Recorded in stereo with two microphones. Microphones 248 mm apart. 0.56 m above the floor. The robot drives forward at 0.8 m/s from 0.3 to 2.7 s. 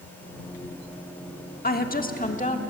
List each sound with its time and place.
1.6 s a woman speaking: 40° left (ahead or behind), 1.4 m; by 2.6 s 30° left (ahead or behind), 1.7 m